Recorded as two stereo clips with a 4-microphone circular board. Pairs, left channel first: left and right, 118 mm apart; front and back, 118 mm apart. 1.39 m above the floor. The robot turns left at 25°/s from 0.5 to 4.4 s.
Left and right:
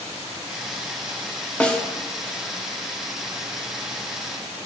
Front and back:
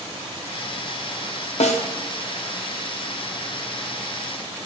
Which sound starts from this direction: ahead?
A snare drum, at 1.6 s.